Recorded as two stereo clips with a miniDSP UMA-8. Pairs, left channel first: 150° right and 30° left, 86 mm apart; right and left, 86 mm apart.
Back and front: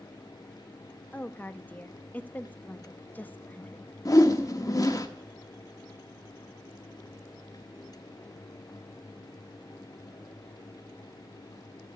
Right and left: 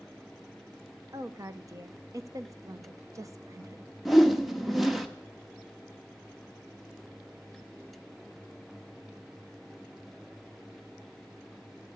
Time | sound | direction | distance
1.1 | a woman speaking | 140° left | 0.7 m
4.0 | a whoosh | straight behind | 1.0 m